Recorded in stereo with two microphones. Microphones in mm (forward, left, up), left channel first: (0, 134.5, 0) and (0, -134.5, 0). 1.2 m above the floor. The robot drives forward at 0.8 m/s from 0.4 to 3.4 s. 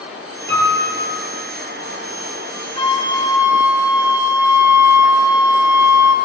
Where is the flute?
20° left (ahead or behind), 1.1 m; by 6.1 s 10° left (ahead or behind), 1.6 m.